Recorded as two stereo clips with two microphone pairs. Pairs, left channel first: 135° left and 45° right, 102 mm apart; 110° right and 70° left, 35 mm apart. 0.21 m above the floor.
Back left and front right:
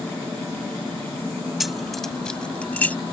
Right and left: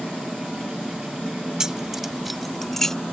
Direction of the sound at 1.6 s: 35° left.